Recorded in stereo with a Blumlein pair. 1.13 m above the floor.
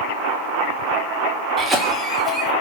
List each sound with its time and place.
1.6 s a cough: 5° right, 2.5 m